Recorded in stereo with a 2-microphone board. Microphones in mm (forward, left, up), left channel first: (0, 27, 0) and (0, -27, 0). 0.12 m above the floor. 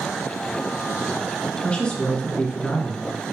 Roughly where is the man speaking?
Centre.